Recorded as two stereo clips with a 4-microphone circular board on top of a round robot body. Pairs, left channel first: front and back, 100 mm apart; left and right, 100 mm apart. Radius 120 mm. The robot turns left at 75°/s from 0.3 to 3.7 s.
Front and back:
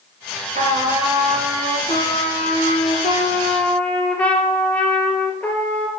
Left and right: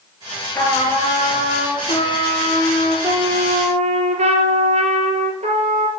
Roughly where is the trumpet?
Behind.